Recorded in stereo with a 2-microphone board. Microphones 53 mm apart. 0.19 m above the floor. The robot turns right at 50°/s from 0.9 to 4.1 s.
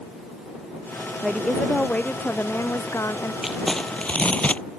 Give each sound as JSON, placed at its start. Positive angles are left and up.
{"t": 1.2, "sound": "a woman speaking", "azimuth_deg": -10}
{"t": 3.4, "sound": "crumpling", "azimuth_deg": -5}